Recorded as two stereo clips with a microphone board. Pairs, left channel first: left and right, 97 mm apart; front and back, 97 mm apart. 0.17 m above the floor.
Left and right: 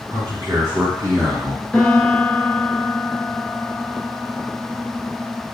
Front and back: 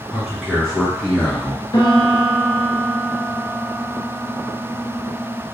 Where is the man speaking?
95° right, 2.0 m; by 1.6 s 60° right, 2 m.